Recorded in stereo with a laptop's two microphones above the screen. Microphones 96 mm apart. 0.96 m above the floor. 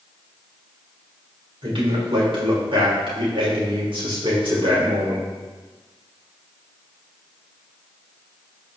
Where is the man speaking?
70° right (ahead or behind), 3.5 m.